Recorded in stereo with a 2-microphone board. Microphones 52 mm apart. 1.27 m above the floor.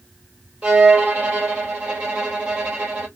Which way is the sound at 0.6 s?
25° right (ahead or behind).